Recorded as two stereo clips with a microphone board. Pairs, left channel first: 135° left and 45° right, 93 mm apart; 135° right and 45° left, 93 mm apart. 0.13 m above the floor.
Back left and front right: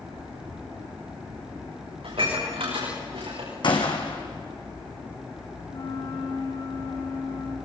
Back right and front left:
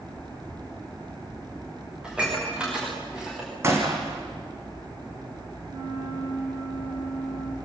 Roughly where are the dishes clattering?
Ahead right.